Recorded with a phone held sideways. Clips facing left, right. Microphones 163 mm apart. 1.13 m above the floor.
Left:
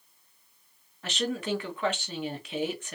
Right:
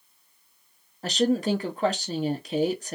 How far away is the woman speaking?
About 0.6 m.